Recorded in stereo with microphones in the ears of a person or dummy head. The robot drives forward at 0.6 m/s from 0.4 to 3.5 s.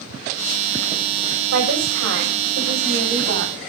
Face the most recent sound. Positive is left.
turn(degrees=-60)  # may be behind; listen again after turning